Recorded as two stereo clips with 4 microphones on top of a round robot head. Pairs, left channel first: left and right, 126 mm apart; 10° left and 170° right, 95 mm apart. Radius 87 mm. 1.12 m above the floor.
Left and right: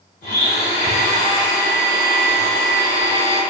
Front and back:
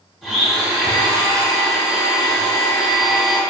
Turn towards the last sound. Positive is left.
turn(degrees=100)